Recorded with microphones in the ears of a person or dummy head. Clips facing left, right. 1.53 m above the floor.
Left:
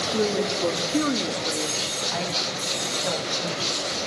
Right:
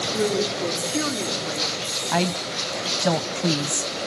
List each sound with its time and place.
0.1 s a woman speaking: 50° left (ahead or behind), 4 m
2.1 s a woman speaking: 65° right (ahead or behind), 0.8 m